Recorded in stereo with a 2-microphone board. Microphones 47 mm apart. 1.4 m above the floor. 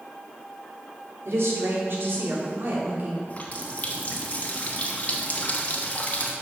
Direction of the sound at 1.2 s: 75° right (ahead or behind).